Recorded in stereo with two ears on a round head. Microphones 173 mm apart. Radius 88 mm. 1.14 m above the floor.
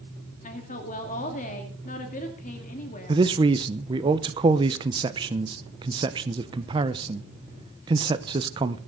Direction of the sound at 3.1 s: 25° right (ahead or behind).